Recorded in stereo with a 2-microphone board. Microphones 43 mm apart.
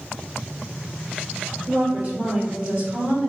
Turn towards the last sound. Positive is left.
turn(degrees=-25)  # may be behind; listen again after turning